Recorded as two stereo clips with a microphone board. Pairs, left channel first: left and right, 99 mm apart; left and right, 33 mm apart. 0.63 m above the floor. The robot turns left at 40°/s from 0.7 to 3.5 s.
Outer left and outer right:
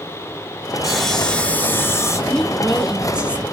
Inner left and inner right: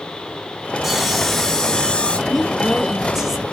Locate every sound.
0.8 s sawing: 175° right, 0.5 m; by 2.2 s 130° left, 0.5 m
2.3 s a woman speaking: 5° left (ahead or behind), 0.5 m; by 3.4 s 15° right (ahead or behind), 0.5 m